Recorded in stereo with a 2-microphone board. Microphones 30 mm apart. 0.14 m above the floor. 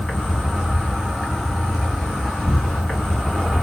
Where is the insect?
10° right (ahead or behind), 1.8 m.